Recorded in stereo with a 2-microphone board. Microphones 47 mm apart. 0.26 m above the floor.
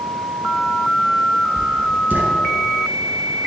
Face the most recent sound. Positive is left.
turn(degrees=-45)  # may be behind; listen again after turning